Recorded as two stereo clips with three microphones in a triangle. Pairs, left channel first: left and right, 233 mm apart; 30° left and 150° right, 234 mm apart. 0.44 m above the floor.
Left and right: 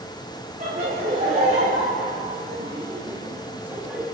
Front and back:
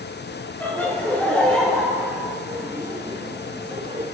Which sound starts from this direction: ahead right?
Laughter, at 0.6 s.